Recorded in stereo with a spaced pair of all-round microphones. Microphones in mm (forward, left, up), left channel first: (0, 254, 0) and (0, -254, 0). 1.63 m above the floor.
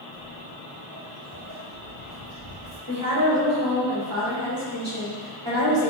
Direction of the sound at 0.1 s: Centre (ahead or behind).